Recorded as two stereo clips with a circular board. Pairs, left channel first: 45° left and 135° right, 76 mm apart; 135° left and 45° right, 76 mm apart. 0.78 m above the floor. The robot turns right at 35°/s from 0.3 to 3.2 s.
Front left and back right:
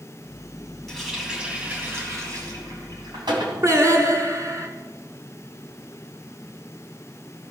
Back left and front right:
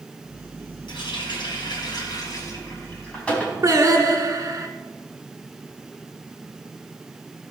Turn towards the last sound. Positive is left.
turn(degrees=-90)